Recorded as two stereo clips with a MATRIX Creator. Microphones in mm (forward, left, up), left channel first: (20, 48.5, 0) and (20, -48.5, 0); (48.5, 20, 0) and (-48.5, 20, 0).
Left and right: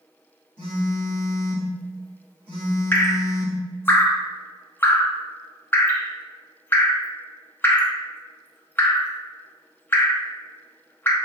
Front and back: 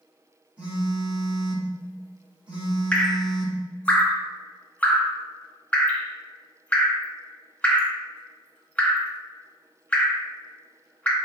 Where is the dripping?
55° left, 0.6 m.